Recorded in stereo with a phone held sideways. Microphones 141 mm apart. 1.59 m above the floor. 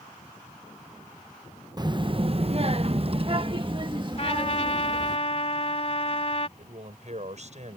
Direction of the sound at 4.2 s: 45° left (ahead or behind).